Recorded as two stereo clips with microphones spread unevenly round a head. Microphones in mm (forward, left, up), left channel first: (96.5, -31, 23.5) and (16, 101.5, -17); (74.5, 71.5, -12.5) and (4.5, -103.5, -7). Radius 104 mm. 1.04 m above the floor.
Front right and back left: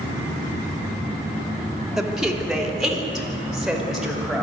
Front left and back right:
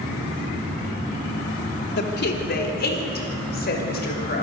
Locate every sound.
2.0 s a woman speaking: 35° left, 3 m